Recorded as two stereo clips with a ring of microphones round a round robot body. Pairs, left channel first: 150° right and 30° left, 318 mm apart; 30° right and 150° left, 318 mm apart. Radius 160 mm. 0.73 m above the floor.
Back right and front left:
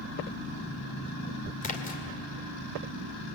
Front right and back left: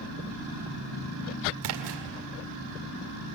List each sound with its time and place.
1.6 s a splash: 145° left, 2 m